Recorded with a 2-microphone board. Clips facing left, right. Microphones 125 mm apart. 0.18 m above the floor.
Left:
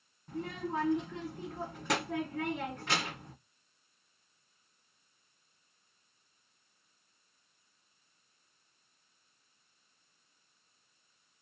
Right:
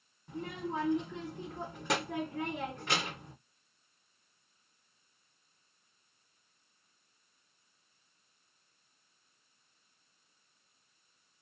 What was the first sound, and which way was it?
A child speaking, centre (ahead or behind).